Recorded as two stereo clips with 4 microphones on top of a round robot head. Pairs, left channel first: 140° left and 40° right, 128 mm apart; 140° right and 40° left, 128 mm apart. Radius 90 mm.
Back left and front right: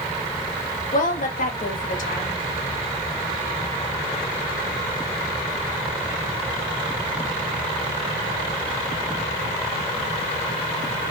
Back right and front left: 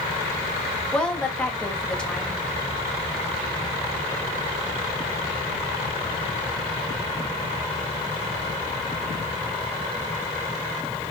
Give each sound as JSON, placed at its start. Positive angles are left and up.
{"t": 0.9, "sound": "a woman speaking", "azimuth_deg": 140, "distance_m": 2.5}